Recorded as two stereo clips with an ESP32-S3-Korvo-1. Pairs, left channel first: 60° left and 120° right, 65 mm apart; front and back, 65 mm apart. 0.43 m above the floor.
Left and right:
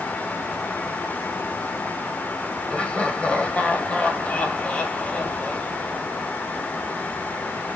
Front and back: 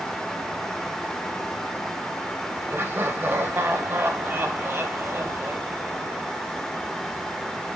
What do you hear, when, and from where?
2.7 s laughter: 130° left, 2.5 m